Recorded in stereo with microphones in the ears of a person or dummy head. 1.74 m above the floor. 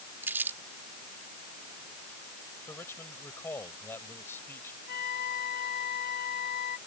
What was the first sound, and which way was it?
Crumpling, 15° right (ahead or behind).